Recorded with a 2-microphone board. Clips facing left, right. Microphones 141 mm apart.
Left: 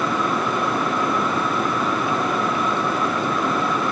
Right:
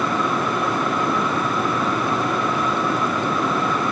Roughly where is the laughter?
No laughter in this recording.